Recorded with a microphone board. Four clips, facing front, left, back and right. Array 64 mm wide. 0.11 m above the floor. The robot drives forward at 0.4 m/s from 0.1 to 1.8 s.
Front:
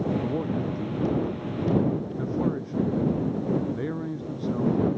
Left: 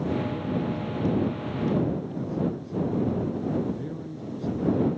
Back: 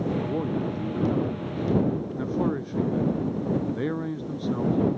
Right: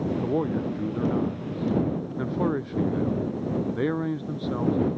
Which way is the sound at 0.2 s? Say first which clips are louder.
Right 3 dB, even; 95° right.